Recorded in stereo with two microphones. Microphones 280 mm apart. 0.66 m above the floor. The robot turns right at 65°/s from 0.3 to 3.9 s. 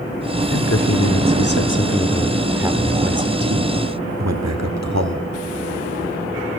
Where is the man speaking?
55° left, 1.8 m; by 5.2 s 85° right, 1.8 m.